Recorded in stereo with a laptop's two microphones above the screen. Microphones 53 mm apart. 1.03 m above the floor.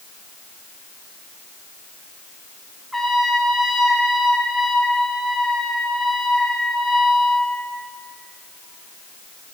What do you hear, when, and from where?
2.9 s a trumpet: centre (ahead or behind), 1.0 m